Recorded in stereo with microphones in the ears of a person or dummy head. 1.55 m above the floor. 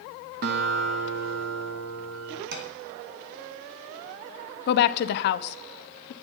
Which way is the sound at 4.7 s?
60° left (ahead or behind).